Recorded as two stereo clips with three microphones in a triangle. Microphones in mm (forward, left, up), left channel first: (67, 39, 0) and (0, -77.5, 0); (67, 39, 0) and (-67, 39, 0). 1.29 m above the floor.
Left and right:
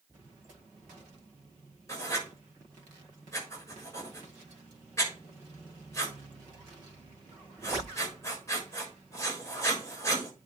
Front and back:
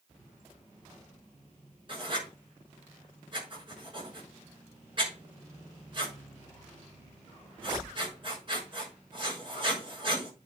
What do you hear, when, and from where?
1.9 s writing: 125° left, 6 m